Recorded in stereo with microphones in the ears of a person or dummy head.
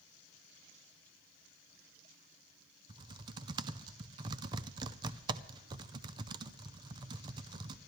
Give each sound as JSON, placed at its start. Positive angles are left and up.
{"t": 2.9, "sound": "typing on a keyboard", "side_deg": -25, "distance_m": 0.6}